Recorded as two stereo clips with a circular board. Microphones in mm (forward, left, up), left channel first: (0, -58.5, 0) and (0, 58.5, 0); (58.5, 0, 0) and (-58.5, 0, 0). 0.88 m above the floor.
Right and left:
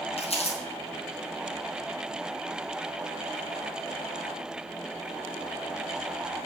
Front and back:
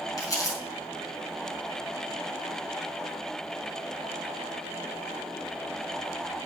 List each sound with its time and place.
0.2 s crumpling: 60° right, 5 m